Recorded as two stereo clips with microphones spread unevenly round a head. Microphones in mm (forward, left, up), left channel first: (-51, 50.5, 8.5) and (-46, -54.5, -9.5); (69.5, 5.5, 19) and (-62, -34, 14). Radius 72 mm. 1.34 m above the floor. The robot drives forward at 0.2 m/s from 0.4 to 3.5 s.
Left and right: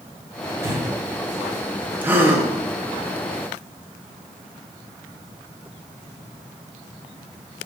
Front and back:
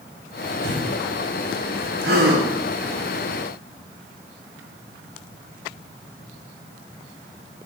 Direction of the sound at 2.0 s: 160° right.